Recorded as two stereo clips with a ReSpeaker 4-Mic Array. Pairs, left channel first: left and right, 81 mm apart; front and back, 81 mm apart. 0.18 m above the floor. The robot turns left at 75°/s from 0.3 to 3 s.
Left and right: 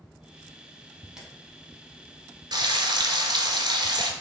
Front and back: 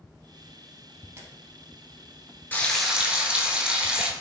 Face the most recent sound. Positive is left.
turn(degrees=-105)